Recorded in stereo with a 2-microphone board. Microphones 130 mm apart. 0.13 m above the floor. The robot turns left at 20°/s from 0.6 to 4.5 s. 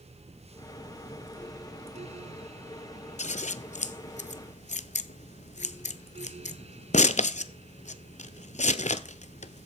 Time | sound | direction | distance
3.2 | scissors | 65° left (ahead or behind) | 0.5 m